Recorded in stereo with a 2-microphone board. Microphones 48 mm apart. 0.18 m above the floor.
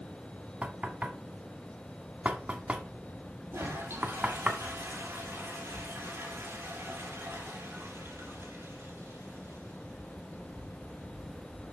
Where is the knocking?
30° right (ahead or behind), 1.1 m.